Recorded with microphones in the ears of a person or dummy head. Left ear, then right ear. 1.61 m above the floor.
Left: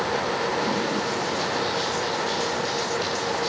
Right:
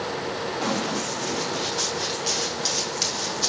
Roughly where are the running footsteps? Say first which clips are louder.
Left 2 dB; centre.